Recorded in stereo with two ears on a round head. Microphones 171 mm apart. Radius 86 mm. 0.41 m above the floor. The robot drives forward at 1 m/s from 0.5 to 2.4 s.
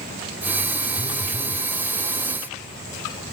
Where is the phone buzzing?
30° left (ahead or behind), 0.8 m.